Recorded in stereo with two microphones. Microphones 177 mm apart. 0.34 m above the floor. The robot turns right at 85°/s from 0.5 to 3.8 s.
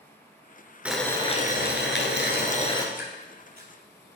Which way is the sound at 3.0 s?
5° right (ahead or behind).